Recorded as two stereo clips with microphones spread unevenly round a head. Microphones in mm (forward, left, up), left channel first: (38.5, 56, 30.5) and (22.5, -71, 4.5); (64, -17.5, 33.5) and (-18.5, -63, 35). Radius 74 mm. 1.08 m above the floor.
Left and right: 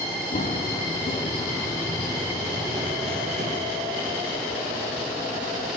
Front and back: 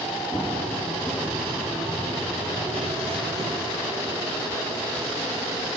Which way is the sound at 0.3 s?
110° left.